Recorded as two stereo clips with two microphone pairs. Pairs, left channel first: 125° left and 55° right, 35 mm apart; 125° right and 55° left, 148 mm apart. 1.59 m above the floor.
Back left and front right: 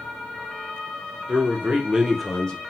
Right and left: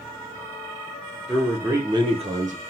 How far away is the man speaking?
About 1.2 m.